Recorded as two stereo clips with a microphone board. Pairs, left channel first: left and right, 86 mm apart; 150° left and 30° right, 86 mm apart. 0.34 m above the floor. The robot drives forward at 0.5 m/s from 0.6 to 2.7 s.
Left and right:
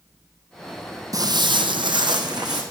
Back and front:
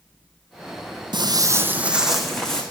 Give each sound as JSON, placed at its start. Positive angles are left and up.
{"t": 1.1, "sound": "footsteps", "azimuth_deg": -45, "distance_m": 0.7}